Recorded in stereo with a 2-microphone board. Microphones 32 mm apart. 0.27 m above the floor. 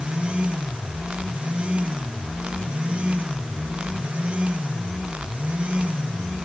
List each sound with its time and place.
Only background noise.